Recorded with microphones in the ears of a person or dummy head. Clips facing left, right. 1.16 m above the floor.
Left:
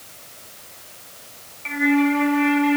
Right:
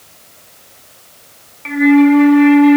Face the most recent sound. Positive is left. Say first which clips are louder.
# right 10 dB
turn(degrees=-65)  # may be behind; listen again after turning